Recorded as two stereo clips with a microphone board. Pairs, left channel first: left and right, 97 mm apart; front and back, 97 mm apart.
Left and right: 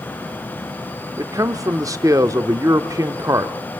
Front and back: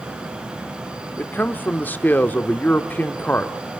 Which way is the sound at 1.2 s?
60° right.